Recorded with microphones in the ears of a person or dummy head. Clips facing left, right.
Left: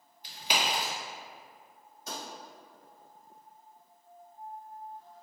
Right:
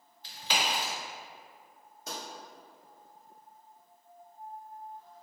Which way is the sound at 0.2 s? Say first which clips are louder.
Left 1 dB; 15° left (ahead or behind).